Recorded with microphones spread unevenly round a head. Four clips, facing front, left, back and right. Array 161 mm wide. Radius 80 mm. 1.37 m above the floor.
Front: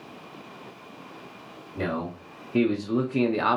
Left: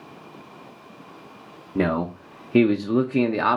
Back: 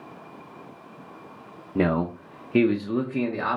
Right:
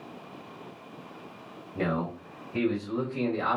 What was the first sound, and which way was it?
A man speaking, 135° left.